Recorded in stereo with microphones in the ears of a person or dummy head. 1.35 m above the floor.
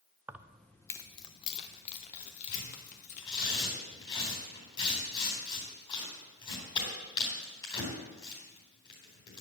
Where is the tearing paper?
25° left (ahead or behind), 4 m.